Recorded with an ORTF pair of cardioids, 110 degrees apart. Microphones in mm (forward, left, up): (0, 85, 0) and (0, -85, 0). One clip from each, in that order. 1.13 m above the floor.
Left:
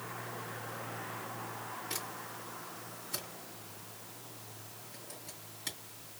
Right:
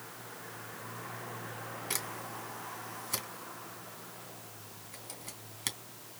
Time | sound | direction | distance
1.9 | a camera shutter | 70° right | 3 m